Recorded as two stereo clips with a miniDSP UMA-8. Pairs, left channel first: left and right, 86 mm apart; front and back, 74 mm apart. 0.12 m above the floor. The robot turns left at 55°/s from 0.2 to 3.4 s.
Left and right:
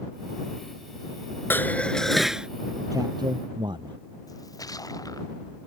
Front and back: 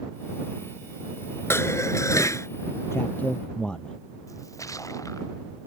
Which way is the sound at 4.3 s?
45° left.